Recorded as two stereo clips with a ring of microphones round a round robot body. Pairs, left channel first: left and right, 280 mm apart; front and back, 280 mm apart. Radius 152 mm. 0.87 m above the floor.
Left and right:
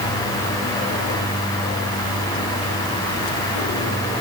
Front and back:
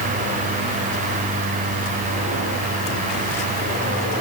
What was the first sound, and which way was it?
Only background noise.